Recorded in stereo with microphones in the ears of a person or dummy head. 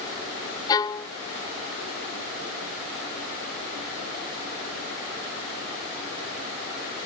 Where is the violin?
20° left (ahead or behind).